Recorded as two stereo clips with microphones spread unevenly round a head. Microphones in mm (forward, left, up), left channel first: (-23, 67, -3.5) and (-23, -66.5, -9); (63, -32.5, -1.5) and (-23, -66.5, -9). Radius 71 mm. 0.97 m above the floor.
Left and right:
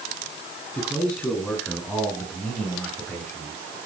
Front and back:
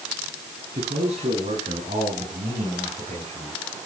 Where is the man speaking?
175° left, 8.5 m; by 3.8 s 165° left, 9.5 m.